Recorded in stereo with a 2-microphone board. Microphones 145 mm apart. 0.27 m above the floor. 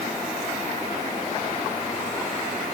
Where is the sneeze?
I don't hear a sneeze.